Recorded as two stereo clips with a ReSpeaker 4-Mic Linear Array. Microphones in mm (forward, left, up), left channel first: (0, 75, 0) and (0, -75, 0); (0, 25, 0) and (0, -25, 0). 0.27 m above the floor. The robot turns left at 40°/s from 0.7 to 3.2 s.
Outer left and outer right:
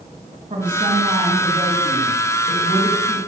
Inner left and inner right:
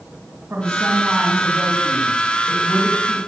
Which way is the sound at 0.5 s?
55° right.